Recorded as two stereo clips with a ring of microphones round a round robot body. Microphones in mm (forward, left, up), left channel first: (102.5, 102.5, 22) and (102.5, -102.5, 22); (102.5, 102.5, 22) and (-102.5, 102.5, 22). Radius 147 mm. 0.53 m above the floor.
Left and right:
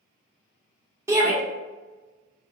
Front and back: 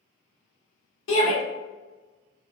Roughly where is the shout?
Ahead.